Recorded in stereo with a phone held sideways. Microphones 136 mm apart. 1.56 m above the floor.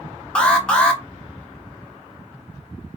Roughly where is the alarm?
Centre.